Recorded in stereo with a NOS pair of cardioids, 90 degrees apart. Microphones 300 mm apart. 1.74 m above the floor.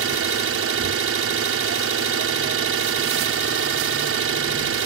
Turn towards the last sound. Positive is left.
turn(degrees=-45)